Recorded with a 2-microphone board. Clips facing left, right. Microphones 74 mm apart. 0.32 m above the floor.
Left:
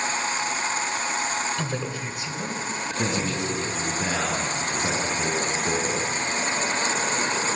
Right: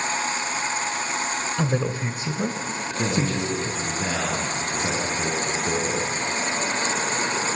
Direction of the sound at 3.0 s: 5° left (ahead or behind).